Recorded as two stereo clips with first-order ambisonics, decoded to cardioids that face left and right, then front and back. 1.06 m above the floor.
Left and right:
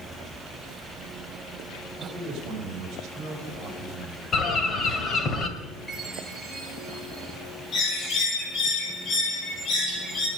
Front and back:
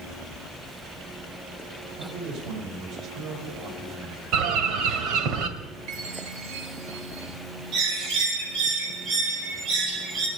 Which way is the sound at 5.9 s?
Straight behind.